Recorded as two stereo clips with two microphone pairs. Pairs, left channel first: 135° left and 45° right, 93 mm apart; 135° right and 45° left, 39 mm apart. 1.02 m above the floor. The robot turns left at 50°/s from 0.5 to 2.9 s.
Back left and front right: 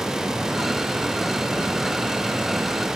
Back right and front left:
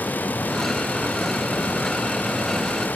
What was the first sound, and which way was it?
Only background noise.